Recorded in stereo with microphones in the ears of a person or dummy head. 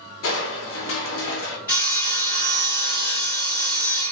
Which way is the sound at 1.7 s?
10° left (ahead or behind).